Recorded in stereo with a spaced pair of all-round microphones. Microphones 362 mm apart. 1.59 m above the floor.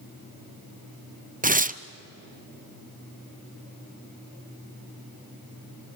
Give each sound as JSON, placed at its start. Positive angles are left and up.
{"t": 1.4, "sound": "tearing paper", "side_deg": -25, "distance_m": 0.6}